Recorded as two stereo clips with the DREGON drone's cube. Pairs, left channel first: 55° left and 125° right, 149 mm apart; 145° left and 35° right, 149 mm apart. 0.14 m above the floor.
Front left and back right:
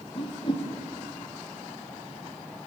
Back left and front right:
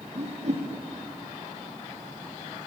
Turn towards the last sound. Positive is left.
turn(degrees=5)